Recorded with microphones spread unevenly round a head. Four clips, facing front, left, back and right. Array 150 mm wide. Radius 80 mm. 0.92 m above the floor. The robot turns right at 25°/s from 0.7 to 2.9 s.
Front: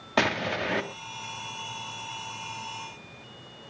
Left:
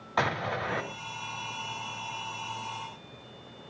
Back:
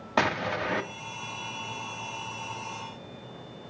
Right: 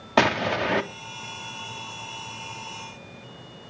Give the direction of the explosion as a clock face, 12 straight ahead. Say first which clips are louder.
Right 7 dB, even; 3 o'clock.